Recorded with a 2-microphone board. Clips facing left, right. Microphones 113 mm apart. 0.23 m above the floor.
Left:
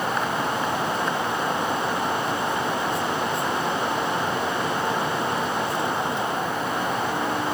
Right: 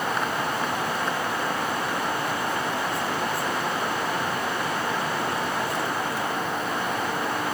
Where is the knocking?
I don't hear knocking.